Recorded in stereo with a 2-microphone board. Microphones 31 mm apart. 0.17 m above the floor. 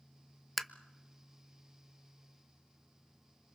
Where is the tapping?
5° left (ahead or behind), 0.7 m.